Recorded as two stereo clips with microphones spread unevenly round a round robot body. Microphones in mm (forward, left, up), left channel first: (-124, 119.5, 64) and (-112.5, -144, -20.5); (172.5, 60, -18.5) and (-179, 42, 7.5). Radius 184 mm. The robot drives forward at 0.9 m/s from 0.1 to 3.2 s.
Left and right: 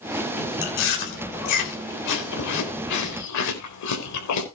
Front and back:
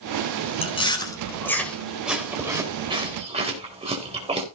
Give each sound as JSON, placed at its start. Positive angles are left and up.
{"t": 0.6, "sound": "chewing", "azimuth_deg": 75, "distance_m": 4.0}